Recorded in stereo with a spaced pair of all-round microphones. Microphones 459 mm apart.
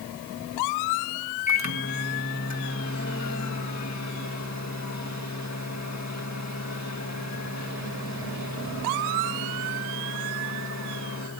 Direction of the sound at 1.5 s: 35° left (ahead or behind).